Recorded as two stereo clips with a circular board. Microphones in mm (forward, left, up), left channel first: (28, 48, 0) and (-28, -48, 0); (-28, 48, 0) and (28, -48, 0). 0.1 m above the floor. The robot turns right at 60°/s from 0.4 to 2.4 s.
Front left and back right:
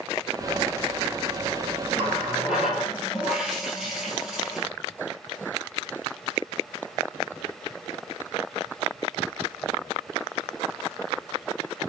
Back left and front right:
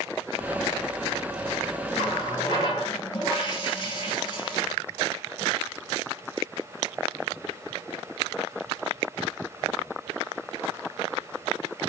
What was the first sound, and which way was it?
A running tap, 125° left.